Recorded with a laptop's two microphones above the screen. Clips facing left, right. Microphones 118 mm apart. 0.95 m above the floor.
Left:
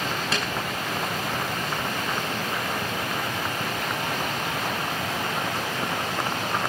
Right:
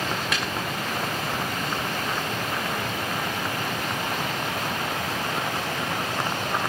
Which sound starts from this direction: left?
A snare drum, at 0.3 s.